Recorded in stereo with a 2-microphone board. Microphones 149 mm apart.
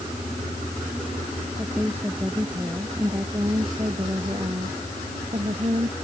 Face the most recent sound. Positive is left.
turn(degrees=-45)  # may be behind; listen again after turning